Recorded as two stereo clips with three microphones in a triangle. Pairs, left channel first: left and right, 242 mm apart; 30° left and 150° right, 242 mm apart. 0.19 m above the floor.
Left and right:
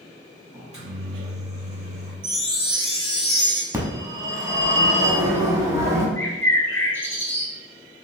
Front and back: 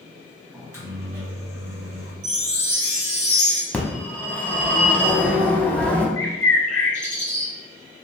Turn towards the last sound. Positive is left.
turn(degrees=10)